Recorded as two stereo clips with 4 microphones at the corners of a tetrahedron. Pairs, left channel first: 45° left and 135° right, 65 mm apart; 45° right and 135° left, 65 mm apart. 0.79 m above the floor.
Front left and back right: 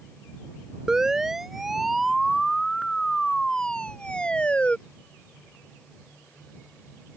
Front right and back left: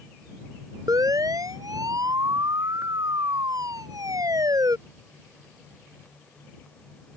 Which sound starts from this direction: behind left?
A siren, at 0.9 s.